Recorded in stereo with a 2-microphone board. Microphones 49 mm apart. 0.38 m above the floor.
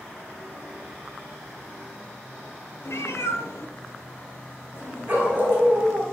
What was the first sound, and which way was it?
A cat meowing, 65° left (ahead or behind).